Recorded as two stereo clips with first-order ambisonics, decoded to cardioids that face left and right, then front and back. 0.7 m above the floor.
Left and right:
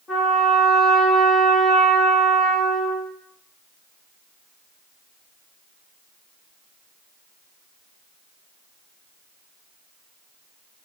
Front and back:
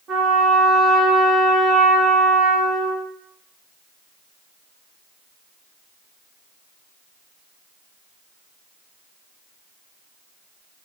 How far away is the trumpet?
About 0.9 m.